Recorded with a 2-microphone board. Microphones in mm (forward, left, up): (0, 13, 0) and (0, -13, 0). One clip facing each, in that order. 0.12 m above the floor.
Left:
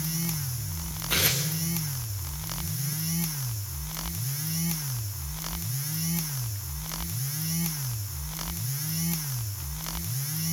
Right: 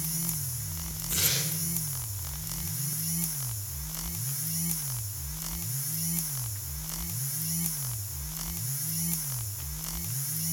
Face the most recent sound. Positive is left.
turn(degrees=50)  # may be behind; listen again after turning